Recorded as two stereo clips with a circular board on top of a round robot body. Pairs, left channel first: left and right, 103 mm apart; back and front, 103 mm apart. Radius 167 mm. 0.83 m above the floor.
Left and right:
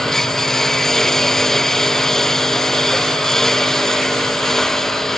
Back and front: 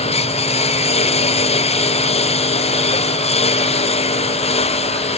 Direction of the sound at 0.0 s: 175° left.